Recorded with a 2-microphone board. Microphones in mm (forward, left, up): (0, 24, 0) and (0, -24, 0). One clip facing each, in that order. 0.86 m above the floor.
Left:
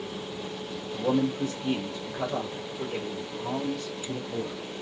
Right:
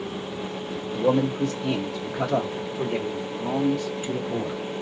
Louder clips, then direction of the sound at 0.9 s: Right 4 dB; 80° right.